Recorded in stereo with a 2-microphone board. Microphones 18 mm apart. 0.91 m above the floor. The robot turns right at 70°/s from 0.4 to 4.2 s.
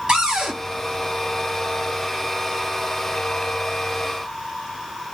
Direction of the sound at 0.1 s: 55° right (ahead or behind).